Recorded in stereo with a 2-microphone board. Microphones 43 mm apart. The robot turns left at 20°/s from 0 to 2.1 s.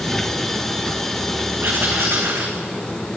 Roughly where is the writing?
Right.